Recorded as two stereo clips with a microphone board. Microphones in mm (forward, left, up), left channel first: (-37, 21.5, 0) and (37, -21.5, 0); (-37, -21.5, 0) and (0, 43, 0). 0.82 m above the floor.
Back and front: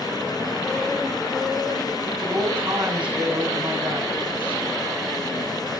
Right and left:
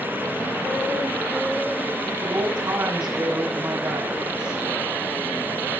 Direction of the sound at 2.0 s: 50° left.